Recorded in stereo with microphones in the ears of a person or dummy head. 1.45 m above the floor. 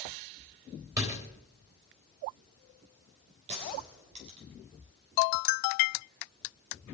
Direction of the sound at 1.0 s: 15° right (ahead or behind).